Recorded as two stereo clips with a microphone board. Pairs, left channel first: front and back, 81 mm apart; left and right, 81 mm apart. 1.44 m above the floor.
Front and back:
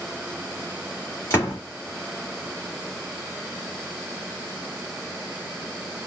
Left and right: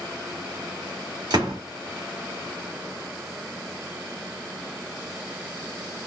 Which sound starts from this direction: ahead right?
A door slam, at 1.3 s.